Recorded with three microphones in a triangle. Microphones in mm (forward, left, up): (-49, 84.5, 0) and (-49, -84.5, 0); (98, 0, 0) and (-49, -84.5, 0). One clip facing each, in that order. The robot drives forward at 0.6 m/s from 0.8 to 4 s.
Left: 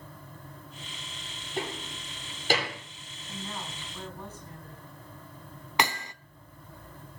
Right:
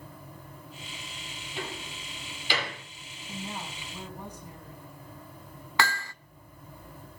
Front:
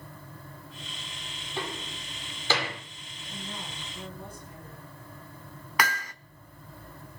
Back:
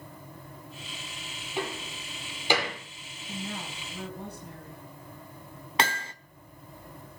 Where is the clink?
I don't hear a clink.